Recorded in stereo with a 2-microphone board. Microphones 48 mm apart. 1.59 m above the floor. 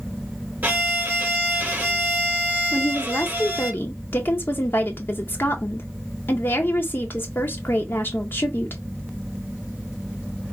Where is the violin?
40° right (ahead or behind), 1.2 m.